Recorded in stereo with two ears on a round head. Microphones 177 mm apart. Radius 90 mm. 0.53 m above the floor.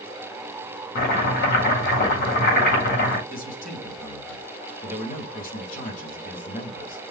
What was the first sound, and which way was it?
Chopping, 50° left (ahead or behind).